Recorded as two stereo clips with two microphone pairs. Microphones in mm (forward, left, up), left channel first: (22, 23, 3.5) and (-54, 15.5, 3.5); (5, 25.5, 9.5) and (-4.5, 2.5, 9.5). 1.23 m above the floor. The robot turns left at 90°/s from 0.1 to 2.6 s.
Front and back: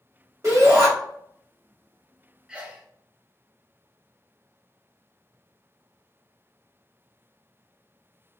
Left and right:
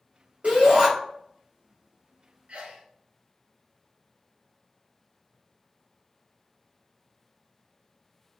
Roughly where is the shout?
Behind right.